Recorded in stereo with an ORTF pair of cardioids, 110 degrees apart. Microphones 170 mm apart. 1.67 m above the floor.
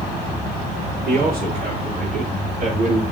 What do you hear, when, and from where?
1.1 s a man speaking: 70° right, 5.5 m; by 3.0 s 45° right, 4 m